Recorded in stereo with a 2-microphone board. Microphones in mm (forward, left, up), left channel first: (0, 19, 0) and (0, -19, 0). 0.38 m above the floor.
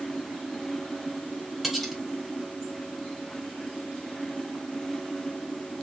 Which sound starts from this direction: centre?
Cutlery clinking, at 1.6 s.